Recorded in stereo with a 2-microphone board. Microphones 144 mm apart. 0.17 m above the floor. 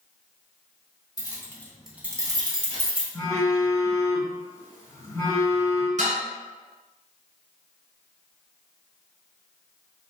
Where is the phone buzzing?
25° left (ahead or behind), 1.0 m.